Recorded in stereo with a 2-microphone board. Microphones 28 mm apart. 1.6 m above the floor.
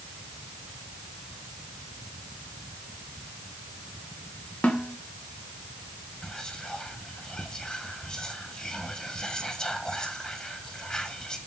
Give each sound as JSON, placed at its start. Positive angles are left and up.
{"t": 4.6, "sound": "a snare drum", "side_deg": 75, "distance_m": 1.2}
{"t": 6.2, "sound": "whispering", "side_deg": 30, "distance_m": 1.0}